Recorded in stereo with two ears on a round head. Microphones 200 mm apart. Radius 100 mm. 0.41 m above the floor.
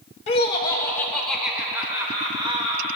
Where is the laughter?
30° left (ahead or behind), 1.4 m; by 3.0 s 30° right (ahead or behind), 1.9 m.